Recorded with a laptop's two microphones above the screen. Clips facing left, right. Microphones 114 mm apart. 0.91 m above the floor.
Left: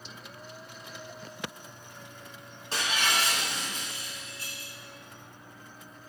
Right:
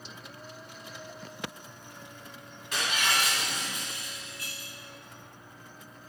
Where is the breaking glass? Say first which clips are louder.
Even; 30° left (ahead or behind), 2 m.